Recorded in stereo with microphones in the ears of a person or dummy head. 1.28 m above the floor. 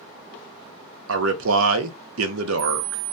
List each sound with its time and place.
1.1 s a man speaking: 80° right, 0.5 m